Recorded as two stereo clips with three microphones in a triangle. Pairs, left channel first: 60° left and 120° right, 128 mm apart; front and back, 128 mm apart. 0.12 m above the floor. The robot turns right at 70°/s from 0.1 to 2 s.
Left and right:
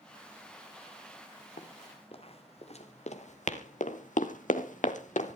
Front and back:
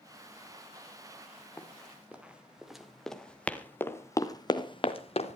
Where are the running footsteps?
75° left, 3 m; by 5.4 s 35° left, 1.9 m.